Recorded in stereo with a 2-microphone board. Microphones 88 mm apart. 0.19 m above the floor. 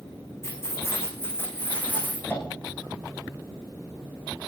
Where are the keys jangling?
30° left (ahead or behind), 9.5 m; by 2.2 s 15° left (ahead or behind), 9 m.